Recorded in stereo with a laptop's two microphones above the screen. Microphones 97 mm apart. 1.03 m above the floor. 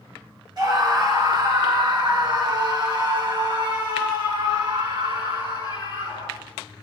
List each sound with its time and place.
0.6 s a scream: 45° right (ahead or behind), 4 m; by 6.4 s 55° right (ahead or behind), 10 m